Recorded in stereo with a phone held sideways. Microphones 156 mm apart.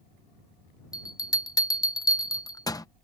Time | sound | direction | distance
0.9 | a bell | 25° left (ahead or behind) | ?